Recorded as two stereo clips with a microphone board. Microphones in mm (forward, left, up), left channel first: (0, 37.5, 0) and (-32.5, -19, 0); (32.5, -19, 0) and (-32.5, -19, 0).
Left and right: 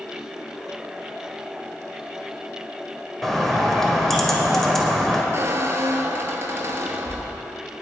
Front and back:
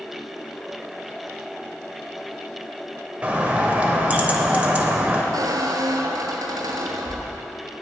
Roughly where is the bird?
Behind left.